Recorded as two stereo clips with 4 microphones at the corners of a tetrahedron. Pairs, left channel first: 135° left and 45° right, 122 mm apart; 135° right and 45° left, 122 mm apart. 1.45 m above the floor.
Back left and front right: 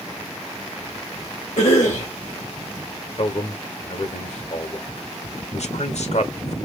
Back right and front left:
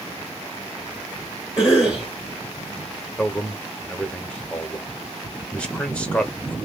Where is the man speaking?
145° left, 1.0 m.